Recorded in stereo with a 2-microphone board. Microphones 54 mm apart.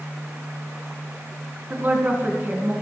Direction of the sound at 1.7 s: 35° right (ahead or behind).